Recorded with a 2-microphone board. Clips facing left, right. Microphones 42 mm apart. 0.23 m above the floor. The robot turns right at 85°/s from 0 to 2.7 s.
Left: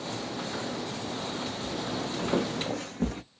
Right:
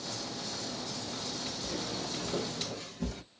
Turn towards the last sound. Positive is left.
turn(degrees=40)  # may be behind; listen again after turning